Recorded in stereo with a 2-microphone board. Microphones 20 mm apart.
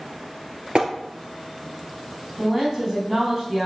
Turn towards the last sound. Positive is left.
turn(degrees=5)  # may be behind; listen again after turning